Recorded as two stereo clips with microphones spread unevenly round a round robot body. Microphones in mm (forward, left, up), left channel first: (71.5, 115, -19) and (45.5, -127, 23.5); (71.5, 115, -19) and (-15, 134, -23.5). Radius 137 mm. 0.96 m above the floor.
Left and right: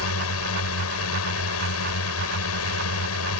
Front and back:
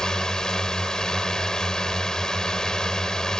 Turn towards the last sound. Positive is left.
turn(degrees=70)